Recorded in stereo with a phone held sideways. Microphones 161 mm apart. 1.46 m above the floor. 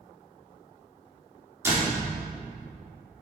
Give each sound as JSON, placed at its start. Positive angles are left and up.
{"t": 1.6, "sound": "a door slam", "side_deg": -15, "distance_m": 3.0}